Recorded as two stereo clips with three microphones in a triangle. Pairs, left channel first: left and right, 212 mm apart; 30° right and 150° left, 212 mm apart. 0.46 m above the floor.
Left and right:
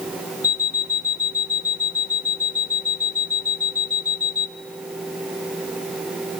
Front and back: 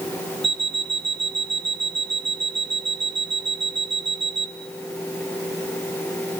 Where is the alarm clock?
130° left, 0.6 m.